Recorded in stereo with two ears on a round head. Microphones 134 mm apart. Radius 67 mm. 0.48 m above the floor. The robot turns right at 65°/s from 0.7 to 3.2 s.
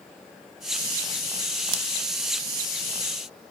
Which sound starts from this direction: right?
Scissors, at 1.7 s.